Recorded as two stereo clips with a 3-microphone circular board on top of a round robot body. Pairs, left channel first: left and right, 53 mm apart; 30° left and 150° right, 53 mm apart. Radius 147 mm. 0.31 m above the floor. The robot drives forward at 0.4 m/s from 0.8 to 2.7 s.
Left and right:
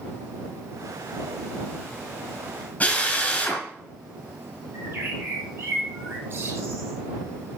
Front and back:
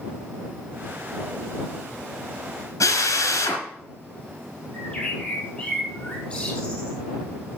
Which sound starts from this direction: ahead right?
A bird, at 4.7 s.